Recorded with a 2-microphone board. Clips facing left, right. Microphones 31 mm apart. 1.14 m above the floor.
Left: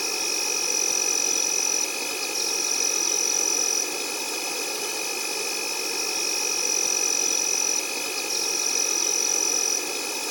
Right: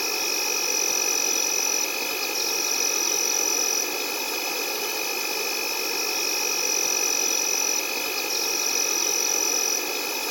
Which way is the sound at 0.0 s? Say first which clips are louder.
Right 1 dB; 10° right (ahead or behind).